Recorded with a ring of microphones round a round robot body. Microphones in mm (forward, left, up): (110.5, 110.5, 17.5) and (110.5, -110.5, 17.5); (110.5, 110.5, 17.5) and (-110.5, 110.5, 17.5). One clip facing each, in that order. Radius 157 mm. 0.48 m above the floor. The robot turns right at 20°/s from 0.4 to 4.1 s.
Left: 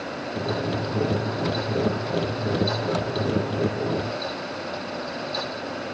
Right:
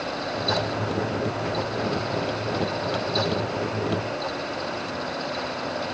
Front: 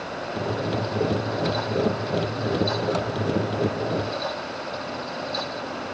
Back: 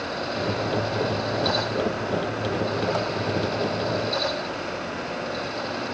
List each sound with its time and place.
Only background noise.